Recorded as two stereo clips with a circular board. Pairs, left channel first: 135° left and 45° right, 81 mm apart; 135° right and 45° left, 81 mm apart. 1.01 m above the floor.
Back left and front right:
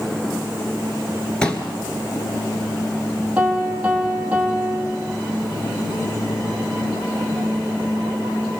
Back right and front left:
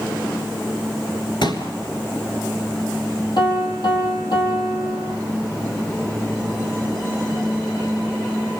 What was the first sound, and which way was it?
A pop, 145° right.